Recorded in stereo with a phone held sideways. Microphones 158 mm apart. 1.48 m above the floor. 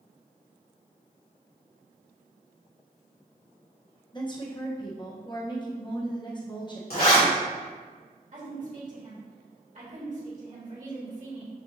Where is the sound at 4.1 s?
30° left (ahead or behind), 1.0 m.